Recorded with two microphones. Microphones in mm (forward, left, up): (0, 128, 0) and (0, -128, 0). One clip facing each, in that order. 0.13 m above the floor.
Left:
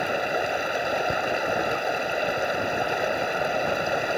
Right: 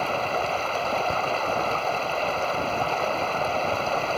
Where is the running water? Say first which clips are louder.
Left 1 dB; 15° left (ahead or behind).